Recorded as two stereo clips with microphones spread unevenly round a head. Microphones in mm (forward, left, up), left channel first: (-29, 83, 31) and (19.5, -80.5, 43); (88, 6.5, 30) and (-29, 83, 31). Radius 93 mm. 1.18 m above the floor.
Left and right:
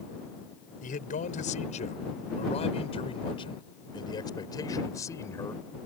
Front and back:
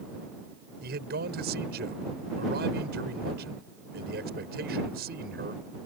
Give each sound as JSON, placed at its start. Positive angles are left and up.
{"t": 0.8, "sound": "a man speaking", "azimuth_deg": 150}